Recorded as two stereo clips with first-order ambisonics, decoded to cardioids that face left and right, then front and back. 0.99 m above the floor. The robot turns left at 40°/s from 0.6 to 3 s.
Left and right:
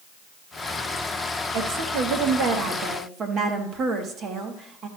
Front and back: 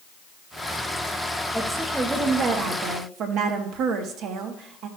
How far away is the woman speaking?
About 1.2 m.